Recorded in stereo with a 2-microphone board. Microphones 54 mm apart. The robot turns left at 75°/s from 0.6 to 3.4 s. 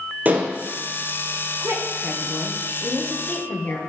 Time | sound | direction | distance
0.2 | dishes clattering | 30° right (ahead or behind) | 1.6 m
1.6 | a woman speaking | 90° right | 2.5 m